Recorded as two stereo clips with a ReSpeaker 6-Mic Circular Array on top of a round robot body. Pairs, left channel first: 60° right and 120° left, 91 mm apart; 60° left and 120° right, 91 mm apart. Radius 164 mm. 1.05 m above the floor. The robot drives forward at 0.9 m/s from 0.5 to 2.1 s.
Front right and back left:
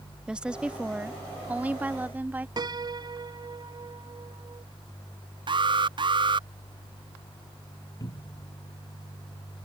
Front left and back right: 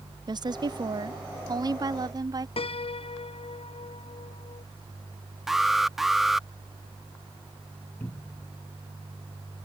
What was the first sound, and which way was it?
A woman speaking, 160° right.